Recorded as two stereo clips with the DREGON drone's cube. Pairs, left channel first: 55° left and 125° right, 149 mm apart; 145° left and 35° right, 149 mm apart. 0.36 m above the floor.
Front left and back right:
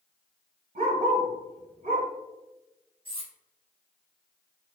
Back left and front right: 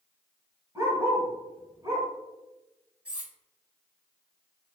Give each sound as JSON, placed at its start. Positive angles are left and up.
{"t": 0.8, "sound": "a dog barking", "azimuth_deg": -105, "distance_m": 0.9}
{"t": 3.0, "sound": "cutlery clinking", "azimuth_deg": -110, "distance_m": 0.6}